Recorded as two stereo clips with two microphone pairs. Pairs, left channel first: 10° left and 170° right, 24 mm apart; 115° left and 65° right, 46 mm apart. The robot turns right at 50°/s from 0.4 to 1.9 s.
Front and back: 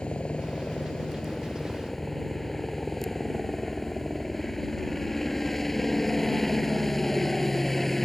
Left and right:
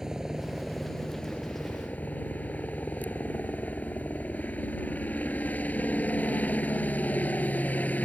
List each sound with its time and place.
0.0 s a helicopter: 10° left; by 8.1 s 85° left